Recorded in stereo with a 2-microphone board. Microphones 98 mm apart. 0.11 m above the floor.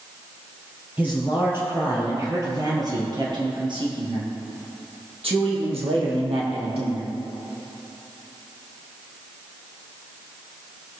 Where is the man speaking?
15° right (ahead or behind), 2.5 m; by 7.1 s 70° right (ahead or behind), 4 m.